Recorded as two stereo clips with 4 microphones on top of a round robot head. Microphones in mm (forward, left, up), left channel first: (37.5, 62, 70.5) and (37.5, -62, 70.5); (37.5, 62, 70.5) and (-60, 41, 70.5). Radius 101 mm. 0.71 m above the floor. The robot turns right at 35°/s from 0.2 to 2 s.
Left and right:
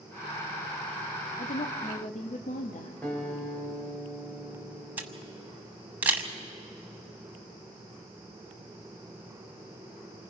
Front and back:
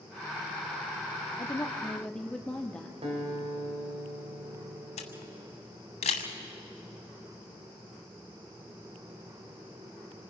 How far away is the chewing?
No chewing in this recording.